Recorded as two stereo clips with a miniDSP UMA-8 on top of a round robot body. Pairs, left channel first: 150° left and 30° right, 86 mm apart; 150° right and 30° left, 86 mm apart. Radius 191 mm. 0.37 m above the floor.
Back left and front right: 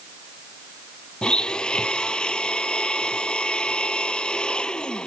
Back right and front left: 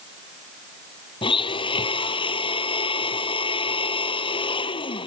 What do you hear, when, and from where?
1.2 s a blender: 130° right